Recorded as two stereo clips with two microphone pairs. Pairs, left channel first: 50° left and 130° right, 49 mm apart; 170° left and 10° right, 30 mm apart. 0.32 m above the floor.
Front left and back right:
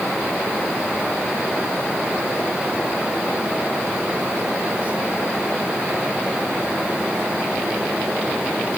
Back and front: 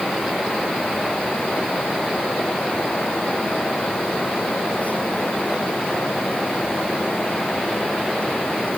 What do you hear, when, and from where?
Only background noise.